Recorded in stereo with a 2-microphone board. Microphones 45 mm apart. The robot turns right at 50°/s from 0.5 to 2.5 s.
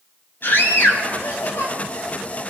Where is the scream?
55° left, 8 m; by 1.7 s 115° left, 8 m.